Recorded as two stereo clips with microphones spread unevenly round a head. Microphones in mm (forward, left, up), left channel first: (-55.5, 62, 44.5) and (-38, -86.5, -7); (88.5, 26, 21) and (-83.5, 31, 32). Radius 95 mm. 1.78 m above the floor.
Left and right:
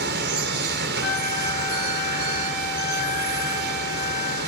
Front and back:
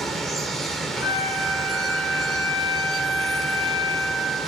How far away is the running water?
About 2.5 m.